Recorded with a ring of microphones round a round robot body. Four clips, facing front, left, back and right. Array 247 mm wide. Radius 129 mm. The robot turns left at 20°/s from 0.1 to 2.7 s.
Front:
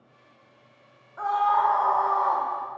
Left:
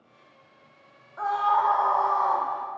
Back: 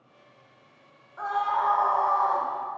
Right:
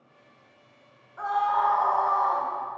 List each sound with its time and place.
1.2 s a scream: 45° left, 1.4 m; by 2.5 s 20° left, 1.4 m